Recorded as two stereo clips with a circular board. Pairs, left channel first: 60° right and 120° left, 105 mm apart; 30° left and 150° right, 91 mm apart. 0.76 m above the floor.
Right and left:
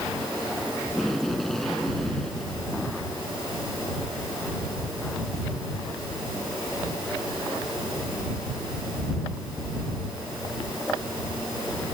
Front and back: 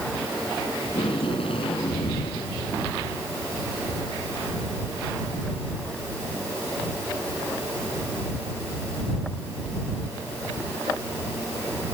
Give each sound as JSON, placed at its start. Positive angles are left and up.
{"t": 0.8, "sound": "tape being pulled", "azimuth_deg": 25}